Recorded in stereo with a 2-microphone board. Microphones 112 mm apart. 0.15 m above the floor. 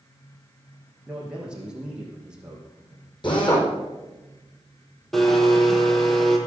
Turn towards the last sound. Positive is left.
turn(degrees=5)  # may be behind; listen again after turning